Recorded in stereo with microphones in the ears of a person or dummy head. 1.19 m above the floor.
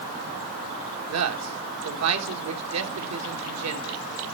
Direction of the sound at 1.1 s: 80° right.